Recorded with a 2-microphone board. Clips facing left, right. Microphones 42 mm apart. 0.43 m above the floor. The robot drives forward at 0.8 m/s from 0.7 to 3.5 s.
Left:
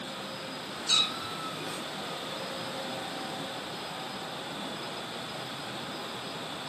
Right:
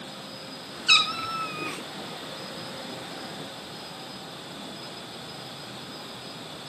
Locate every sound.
0.9 s a cat meowing: 80° right, 1.6 m; by 1.8 s 65° right (ahead or behind), 1.7 m